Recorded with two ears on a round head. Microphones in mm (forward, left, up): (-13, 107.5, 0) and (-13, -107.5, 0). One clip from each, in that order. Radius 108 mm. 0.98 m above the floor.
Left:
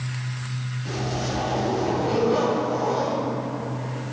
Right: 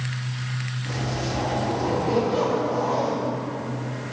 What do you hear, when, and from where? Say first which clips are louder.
0.8 s a zipper: left 1 dB; 60° left (ahead or behind), 7 m